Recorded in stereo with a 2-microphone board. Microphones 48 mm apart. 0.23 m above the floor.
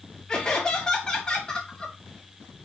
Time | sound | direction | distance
0.3 | laughter | 15° left (ahead or behind) | 1.4 m